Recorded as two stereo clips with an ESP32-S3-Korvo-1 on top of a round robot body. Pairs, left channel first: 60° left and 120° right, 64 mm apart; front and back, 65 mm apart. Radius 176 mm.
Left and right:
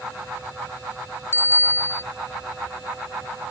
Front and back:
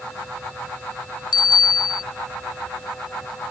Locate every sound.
1.3 s a bicycle bell: 5° left